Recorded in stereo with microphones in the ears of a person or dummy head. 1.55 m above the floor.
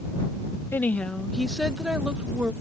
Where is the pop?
I don't hear a pop.